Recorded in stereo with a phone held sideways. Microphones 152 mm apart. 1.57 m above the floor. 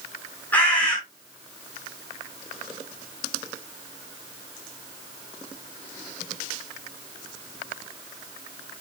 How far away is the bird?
About 5 m.